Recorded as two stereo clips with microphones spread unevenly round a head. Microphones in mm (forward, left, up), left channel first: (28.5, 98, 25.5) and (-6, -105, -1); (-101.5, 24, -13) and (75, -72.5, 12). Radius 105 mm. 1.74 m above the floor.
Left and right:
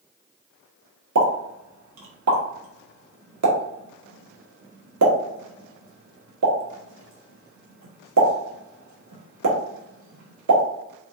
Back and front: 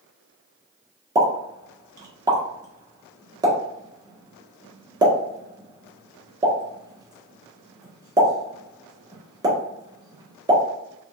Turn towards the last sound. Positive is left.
turn(degrees=-100)